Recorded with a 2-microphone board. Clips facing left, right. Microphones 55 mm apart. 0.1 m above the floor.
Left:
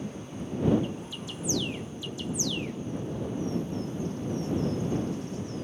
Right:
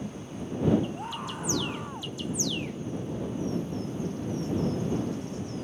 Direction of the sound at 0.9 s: 60° right (ahead or behind).